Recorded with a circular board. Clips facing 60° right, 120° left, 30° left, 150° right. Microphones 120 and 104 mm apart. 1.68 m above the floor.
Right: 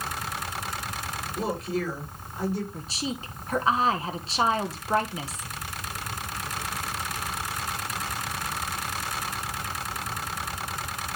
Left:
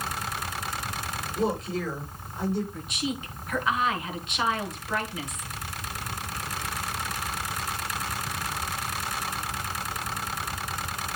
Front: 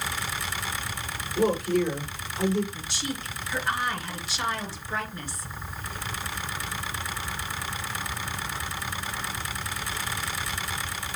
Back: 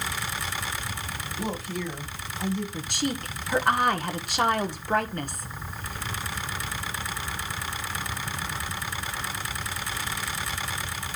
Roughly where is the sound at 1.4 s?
Ahead left.